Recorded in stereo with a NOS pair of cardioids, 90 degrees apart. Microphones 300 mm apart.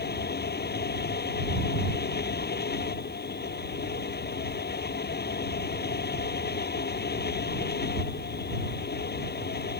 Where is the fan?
35° left.